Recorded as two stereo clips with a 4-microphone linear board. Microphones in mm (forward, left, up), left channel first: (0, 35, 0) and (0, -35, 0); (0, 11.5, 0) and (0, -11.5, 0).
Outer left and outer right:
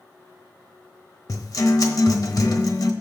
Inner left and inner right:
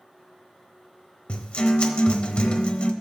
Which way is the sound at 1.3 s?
60° left (ahead or behind).